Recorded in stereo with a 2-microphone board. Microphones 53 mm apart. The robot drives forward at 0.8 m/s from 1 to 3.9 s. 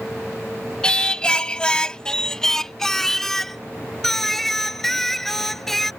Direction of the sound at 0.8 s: 15° left (ahead or behind).